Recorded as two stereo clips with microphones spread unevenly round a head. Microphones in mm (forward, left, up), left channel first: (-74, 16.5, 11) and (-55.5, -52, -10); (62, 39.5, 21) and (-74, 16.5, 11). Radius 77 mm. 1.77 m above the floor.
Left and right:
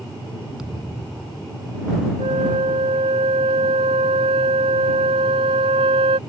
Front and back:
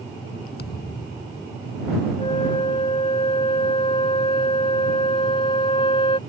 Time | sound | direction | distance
0.6 | a thud | 15° left | ?
2.2 | a flute | 50° right | ?